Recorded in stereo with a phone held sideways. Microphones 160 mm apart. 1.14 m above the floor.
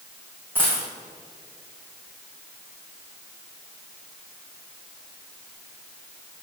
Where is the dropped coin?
10° right (ahead or behind), 3 m.